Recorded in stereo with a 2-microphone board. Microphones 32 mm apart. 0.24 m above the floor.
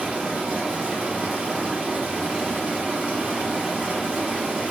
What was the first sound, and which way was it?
Running water, 50° right (ahead or behind).